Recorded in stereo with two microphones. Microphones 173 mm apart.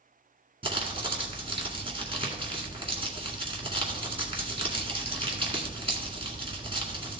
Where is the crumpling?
30° right (ahead or behind), 1.9 m.